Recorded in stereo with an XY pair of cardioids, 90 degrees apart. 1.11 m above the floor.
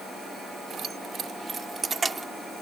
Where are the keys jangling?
60° right; by 2.3 s 25° right.